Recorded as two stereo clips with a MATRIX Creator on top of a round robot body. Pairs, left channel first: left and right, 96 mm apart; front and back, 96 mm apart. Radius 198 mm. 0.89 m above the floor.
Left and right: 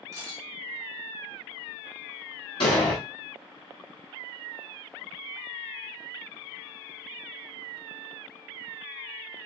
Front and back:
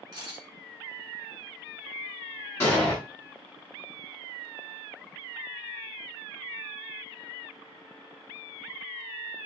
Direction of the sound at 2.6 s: 60° left.